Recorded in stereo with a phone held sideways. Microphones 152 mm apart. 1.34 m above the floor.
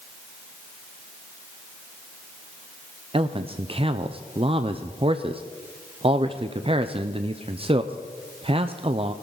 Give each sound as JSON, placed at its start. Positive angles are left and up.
{"t": 3.1, "sound": "a man speaking", "side_deg": -40, "distance_m": 0.5}